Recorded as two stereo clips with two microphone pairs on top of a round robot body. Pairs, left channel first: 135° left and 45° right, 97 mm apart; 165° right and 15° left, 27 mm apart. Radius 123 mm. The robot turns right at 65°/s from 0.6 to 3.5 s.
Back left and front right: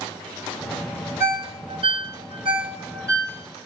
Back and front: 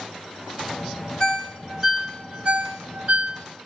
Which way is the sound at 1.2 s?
110° right.